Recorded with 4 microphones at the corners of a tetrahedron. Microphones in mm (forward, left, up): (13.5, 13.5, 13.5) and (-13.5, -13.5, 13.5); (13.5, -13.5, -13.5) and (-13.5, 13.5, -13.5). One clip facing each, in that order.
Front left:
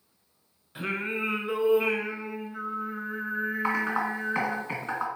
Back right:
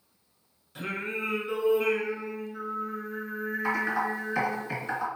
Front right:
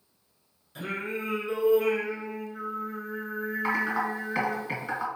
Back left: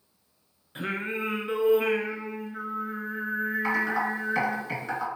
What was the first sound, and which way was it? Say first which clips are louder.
Singing: front left 2 dB, back left 2 dB; 105° left.